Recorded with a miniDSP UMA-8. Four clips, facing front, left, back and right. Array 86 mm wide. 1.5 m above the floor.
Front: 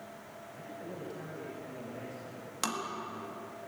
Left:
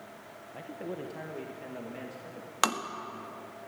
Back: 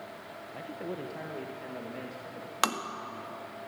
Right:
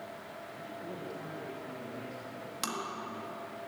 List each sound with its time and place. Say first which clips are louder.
0.5 s a man speaking: left 6 dB, back 6 dB; 140° left, 1.4 m; by 2.5 s 130° left, 3 m
2.6 s tapping: left 9 dB, back 6 dB; 125° left, 1.8 m